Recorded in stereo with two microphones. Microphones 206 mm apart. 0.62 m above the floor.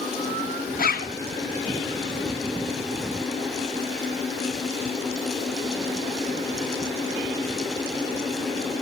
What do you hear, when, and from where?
0.8 s a zipper: 45° left (ahead or behind), 0.6 m